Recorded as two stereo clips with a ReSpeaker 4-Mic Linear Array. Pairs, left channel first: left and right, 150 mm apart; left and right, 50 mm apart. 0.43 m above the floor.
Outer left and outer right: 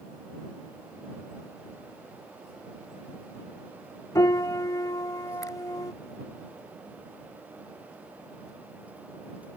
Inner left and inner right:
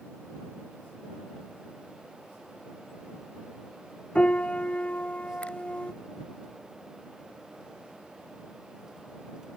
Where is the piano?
25° left (ahead or behind).